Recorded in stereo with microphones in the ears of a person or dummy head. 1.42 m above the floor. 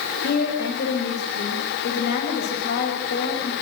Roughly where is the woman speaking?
Left.